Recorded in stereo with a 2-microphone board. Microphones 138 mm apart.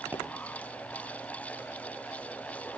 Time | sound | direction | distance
0.1 | a pop | 10° right (ahead or behind) | 2.5 m